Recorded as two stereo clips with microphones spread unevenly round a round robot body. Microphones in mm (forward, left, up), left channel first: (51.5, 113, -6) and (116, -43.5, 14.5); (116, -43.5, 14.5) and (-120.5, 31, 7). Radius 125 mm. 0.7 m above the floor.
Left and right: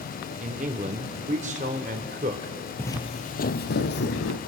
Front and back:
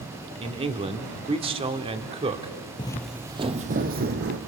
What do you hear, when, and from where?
0.4 s a man speaking: 130° right, 1.5 m
2.8 s footsteps: 30° left, 0.8 m; by 4.4 s 115° left, 1.9 m